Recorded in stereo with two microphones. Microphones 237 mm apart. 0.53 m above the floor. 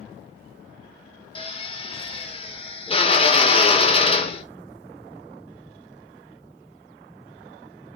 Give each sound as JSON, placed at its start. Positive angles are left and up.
{"t": 1.4, "sound": "a drill", "side_deg": 25, "distance_m": 1.5}